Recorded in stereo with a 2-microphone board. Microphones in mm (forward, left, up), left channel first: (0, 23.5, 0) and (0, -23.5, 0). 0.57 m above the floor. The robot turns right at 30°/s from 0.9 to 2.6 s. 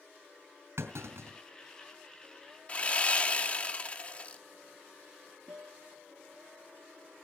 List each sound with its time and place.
0.8 s a clunk: 75° right (ahead or behind), 3.5 m; by 1.4 s 85° right, 3.5 m
2.7 s sawing: 30° left (ahead or behind), 0.8 m
5.5 s a guitar: 70° right (ahead or behind), 3 m